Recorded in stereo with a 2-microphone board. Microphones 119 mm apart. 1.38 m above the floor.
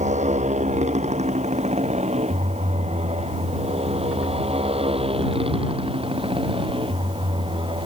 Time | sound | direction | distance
0.0 | a motorcycle | 80° right | ?